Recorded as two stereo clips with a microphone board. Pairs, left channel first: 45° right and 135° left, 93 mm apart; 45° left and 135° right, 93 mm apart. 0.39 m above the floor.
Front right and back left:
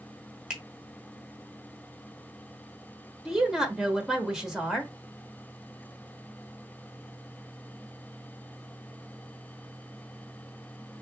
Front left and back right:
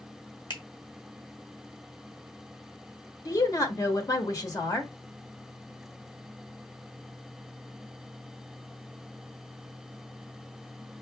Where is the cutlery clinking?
No cutlery clinking in this recording.